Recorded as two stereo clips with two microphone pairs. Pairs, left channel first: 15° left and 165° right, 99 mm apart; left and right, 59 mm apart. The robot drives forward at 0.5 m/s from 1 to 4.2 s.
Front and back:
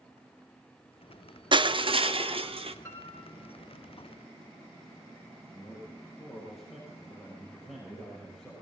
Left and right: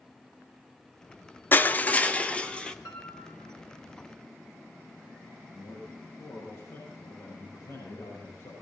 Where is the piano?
75° left, 3.5 m; by 3.5 s 80° left, 3.5 m.